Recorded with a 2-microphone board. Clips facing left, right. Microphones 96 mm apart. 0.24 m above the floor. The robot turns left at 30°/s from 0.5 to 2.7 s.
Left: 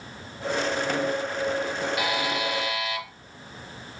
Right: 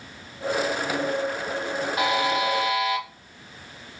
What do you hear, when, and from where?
2.0 s a buzzer: 30° right (ahead or behind), 1.1 m; by 3.0 s 40° right (ahead or behind), 1.1 m